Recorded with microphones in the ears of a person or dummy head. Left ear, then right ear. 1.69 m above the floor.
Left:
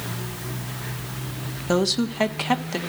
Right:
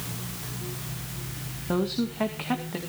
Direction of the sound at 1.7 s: 80° left.